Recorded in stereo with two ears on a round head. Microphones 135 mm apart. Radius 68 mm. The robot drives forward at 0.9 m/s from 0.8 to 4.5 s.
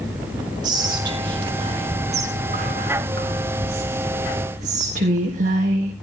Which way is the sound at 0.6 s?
25° right (ahead or behind).